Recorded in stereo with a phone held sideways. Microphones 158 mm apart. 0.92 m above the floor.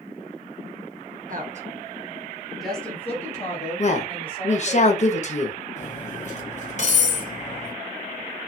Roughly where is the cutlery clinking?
Left.